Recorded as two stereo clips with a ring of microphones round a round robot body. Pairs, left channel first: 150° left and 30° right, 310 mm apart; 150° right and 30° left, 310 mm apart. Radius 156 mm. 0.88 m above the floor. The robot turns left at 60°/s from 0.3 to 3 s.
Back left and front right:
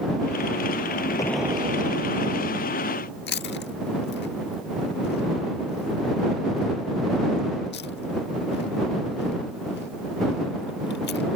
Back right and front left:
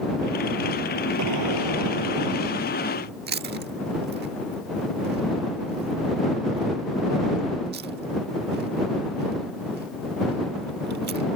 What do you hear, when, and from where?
1.2 s an explosion: 70° left; by 3.1 s 40° right
3.3 s chewing: 90° left